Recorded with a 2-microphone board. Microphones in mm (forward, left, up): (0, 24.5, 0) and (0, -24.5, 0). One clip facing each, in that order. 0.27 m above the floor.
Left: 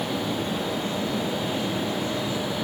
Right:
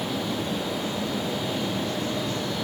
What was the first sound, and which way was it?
Only background noise.